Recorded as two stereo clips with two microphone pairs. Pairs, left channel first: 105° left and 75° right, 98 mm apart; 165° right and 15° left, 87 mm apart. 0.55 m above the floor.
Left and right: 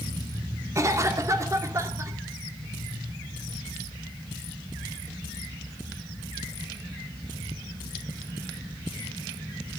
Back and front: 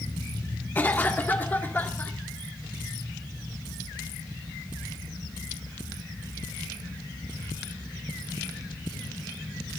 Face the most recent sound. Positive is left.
turn(degrees=-105)